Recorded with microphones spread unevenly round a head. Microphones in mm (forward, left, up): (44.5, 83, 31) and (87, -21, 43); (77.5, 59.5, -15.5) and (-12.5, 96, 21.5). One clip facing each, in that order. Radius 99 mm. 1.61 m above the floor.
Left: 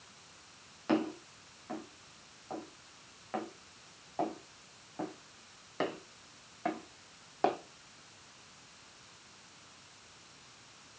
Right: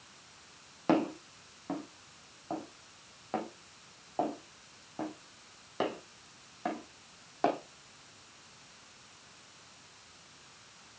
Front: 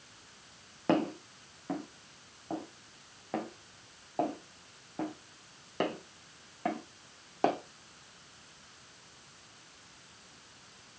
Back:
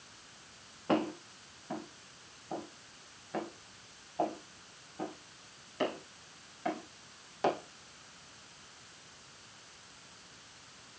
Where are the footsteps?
35° right, 4 m; by 7.6 s 20° left, 4 m.